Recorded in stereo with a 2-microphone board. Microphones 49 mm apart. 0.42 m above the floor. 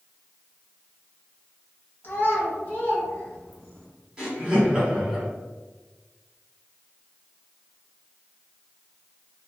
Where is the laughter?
15° right (ahead or behind), 1.3 m.